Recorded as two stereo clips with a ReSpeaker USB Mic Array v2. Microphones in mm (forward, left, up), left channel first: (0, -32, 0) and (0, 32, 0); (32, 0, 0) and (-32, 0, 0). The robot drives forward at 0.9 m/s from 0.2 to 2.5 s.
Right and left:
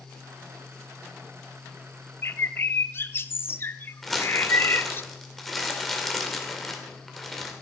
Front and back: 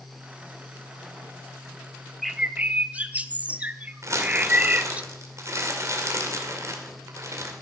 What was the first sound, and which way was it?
A bird, 85° right.